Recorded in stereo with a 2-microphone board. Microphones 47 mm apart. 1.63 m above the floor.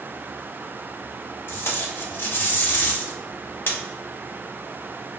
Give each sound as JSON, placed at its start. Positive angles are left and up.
{"t": 1.5, "sound": "tape being pulled", "side_deg": 50, "distance_m": 0.6}